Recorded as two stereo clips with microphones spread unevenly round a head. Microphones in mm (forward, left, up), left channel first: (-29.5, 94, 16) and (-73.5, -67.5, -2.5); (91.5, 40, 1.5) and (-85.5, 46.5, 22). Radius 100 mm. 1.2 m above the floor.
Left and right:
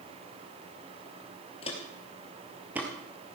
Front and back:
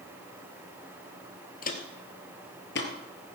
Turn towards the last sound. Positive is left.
turn(degrees=-25)